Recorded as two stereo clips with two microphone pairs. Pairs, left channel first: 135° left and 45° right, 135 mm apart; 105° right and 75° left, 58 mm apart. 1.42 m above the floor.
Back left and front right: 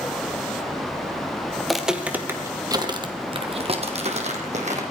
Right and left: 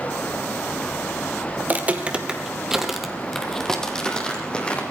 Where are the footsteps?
50° left, 1.7 m; by 4.8 s 35° right, 3 m.